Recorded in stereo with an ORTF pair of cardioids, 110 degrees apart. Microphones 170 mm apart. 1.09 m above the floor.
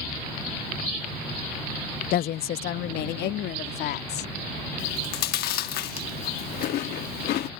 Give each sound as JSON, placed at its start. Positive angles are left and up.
{"t": 2.1, "sound": "a woman speaking", "azimuth_deg": 60}
{"t": 4.8, "sound": "chewing", "azimuth_deg": 70}